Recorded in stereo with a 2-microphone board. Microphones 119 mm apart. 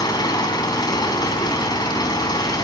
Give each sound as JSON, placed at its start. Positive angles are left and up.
{"t": 0.0, "sound": "an engine running", "side_deg": 35, "distance_m": 4.5}